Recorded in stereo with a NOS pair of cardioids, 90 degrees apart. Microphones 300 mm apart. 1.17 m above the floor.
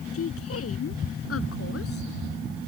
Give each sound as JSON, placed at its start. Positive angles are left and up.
{"t": 0.1, "sound": "a woman speaking", "azimuth_deg": 50}